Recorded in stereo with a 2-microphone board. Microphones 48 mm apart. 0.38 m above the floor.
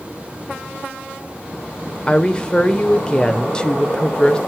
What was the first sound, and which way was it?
A woman speaking, 20° left (ahead or behind).